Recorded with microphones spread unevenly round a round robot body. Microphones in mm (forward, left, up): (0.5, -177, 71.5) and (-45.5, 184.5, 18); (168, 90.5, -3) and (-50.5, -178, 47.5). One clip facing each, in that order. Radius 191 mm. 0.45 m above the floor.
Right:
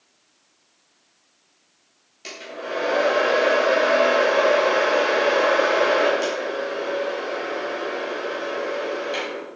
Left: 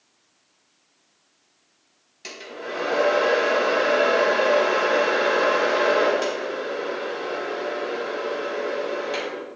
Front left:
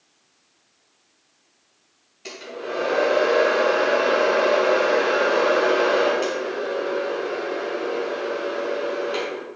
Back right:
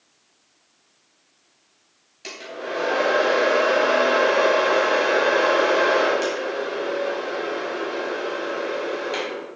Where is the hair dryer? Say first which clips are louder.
Right 1 dB, front left 1 dB; 170° left, 4 m.